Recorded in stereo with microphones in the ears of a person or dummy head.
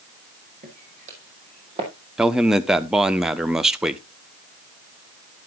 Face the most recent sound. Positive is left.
turn(degrees=-10)  # may be behind; listen again after turning